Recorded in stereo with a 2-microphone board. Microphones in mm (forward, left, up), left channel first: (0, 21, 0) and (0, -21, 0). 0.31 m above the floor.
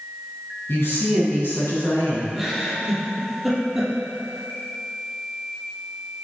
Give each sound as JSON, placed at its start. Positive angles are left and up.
{"t": 0.7, "sound": "a woman speaking", "side_deg": 65, "distance_m": 3.0}
{"t": 2.3, "sound": "a giggle", "side_deg": 0, "distance_m": 2.5}